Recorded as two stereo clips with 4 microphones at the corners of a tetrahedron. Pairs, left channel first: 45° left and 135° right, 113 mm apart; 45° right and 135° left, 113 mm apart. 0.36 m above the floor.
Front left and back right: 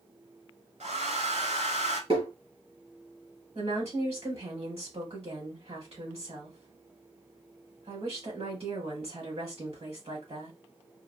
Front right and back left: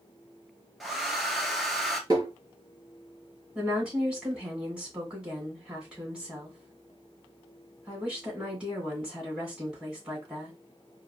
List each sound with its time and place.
0.8 s a hair dryer: 135° right, 0.8 m
2.1 s tapping: 165° right, 2.5 m
3.5 s a woman speaking: 145° right, 2.5 m